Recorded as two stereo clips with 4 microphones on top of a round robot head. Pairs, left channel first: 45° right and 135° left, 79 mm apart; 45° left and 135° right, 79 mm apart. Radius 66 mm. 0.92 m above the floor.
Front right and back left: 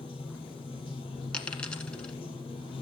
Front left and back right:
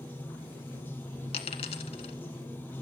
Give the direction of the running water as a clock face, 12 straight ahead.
1 o'clock.